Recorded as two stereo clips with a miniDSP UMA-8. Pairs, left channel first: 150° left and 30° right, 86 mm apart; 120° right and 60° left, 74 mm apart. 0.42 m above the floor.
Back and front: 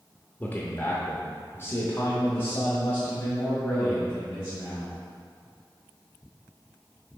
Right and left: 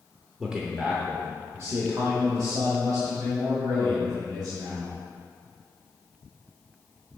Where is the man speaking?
135° left, 0.8 m; by 4.9 s 85° left, 2.5 m.